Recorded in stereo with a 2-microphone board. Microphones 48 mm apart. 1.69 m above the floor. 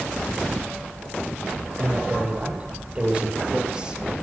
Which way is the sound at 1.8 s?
30° right (ahead or behind).